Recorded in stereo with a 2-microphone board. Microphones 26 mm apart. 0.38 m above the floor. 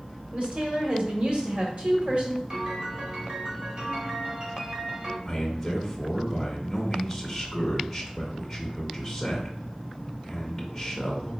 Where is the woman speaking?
50° right (ahead or behind), 1.2 m.